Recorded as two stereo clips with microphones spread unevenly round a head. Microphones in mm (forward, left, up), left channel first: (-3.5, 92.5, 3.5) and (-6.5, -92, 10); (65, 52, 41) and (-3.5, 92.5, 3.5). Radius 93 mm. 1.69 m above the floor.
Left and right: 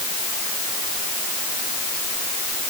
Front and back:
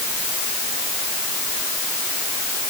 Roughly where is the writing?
I don't hear writing.